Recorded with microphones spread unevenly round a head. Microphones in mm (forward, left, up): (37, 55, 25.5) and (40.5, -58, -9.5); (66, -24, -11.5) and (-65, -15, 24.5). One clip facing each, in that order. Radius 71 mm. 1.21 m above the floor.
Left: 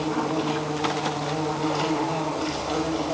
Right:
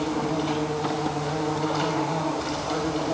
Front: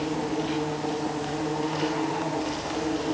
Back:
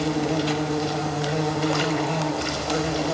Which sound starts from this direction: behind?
An insect, at 0.0 s.